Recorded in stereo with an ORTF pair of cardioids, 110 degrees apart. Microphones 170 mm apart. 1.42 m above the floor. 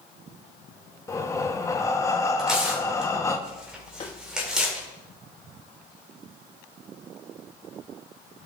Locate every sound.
1.1 s breathing: 15° left, 1.0 m
2.4 s tearing paper: 5° right, 2.5 m
4.0 s tapping: 40° left, 1.6 m